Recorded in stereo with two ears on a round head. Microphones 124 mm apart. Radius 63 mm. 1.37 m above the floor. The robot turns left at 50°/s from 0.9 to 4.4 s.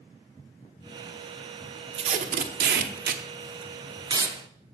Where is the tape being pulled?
40° right (ahead or behind), 0.8 m; by 4.3 s 20° right (ahead or behind), 0.8 m.